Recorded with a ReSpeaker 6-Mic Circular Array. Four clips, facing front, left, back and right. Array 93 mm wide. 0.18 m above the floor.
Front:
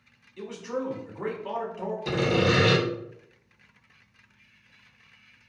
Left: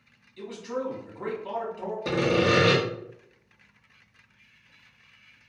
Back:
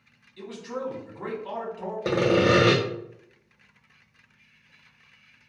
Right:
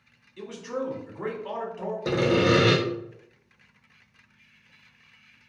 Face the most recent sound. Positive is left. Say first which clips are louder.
# right 1 dB, back 4 dB
turn(degrees=-175)